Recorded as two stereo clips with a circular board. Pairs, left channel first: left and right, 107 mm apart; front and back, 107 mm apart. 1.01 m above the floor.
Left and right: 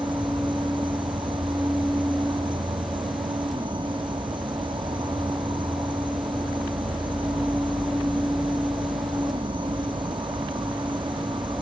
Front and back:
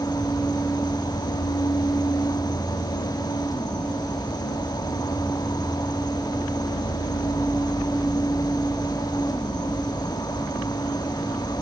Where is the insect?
50° right.